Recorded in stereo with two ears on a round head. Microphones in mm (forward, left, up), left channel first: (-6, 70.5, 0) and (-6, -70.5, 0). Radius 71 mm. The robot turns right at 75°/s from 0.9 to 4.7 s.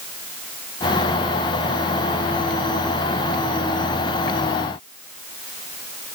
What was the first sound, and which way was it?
Only background noise.